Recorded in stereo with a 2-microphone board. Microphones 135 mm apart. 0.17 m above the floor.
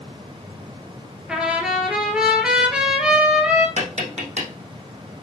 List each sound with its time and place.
1.3 s a trumpet: 5° right (ahead or behind), 2 m
3.8 s tapping: 60° right (ahead or behind), 3.5 m